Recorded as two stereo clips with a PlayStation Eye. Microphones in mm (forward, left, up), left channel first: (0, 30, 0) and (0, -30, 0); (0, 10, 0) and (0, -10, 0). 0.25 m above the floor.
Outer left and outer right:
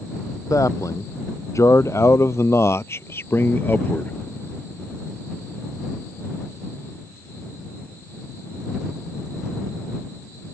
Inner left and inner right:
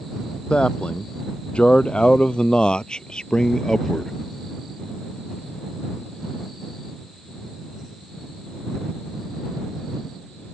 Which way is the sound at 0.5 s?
60° left (ahead or behind).